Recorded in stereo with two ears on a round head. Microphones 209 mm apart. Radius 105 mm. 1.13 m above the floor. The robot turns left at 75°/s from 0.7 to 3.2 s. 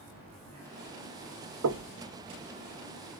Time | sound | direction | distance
1.6 | knocking | 75° right (ahead or behind) | 0.8 m